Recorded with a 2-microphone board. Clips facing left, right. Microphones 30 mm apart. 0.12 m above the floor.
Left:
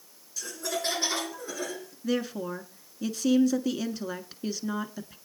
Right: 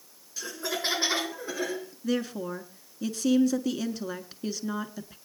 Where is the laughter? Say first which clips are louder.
Right 1 dB; 25° right (ahead or behind), 1.7 m; by 1.9 s 30° right (ahead or behind), 2.5 m.